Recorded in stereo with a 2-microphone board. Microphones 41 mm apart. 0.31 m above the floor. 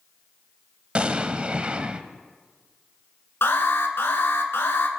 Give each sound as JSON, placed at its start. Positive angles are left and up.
{"t": 0.9, "sound": "an explosion", "side_deg": -30, "distance_m": 0.8}
{"t": 3.4, "sound": "an alarm", "side_deg": 70, "distance_m": 2.5}